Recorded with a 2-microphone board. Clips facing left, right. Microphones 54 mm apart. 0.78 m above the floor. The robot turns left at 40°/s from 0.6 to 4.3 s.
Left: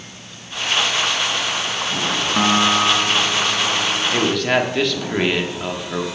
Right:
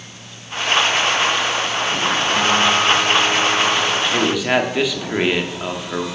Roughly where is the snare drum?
No snare drum in this recording.